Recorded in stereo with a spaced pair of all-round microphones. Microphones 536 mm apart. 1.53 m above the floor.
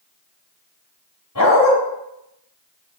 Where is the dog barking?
35° left (ahead or behind), 3.5 m.